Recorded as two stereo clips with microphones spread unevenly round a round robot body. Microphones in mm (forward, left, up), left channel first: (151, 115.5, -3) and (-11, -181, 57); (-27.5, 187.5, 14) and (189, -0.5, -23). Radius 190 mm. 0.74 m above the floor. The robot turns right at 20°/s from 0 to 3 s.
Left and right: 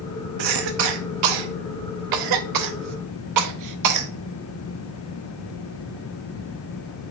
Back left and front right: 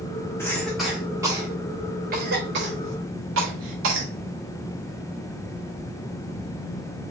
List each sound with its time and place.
0.4 s a cough: 135° right, 0.8 m; by 4.1 s 80° right, 0.8 m